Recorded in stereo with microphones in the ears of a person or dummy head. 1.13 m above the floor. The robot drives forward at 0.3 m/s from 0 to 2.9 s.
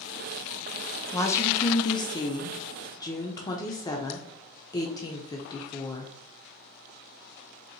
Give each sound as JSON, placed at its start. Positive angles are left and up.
{"t": 1.1, "sound": "a woman speaking", "side_deg": 25, "distance_m": 0.8}